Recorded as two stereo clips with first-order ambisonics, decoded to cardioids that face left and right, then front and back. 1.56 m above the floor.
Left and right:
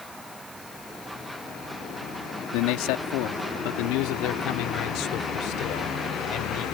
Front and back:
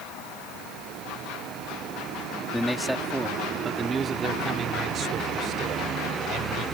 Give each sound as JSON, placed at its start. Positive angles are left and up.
{"t": 2.5, "sound": "a man speaking", "azimuth_deg": 90}